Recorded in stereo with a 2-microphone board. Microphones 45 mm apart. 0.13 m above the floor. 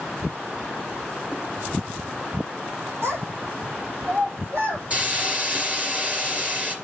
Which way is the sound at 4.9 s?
35° right (ahead or behind).